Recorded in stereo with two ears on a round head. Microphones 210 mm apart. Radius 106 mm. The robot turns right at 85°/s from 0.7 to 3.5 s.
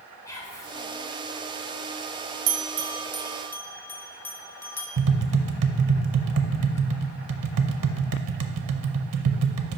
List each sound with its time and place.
0.2 s whispering: 15° left (ahead or behind), 1.4 m
2.5 s a bell: 70° right (ahead or behind), 0.6 m; by 4.9 s 10° left (ahead or behind), 0.6 m
5.0 s tapping: 65° right (ahead or behind), 0.5 m